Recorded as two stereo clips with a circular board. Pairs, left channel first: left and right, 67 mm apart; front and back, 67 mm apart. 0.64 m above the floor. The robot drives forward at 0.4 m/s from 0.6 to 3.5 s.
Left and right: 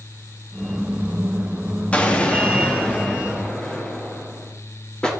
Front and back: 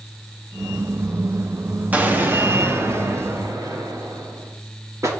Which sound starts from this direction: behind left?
An explosion, at 1.9 s.